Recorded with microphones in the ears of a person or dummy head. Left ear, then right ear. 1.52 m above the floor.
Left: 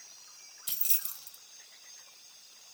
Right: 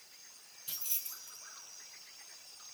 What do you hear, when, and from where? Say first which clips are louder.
0.7 s keys jangling: left 4 dB; 45° left (ahead or behind), 0.7 m